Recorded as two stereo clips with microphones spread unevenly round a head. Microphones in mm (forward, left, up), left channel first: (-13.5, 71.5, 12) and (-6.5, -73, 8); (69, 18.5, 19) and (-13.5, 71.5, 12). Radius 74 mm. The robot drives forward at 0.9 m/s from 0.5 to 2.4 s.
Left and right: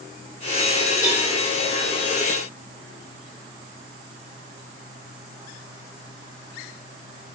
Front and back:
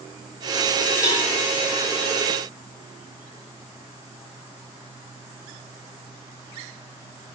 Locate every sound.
1.0 s a cowbell: 25° left, 5 m